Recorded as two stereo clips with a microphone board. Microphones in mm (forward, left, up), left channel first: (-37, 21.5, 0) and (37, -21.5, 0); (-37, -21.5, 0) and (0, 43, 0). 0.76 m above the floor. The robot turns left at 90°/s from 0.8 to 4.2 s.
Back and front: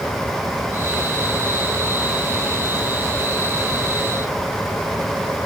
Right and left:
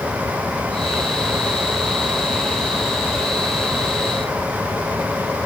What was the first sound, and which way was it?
Only background noise.